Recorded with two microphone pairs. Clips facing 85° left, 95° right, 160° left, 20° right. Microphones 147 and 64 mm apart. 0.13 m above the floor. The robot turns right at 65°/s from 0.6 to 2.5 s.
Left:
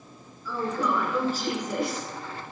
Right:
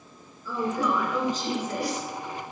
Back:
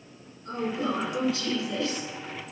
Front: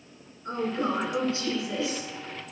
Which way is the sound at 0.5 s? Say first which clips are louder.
Right 1 dB, front 1 dB; 35° right.